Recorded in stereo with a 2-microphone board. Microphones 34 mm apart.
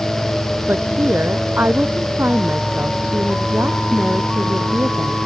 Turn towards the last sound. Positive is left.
turn(degrees=-65)  # may be behind; listen again after turning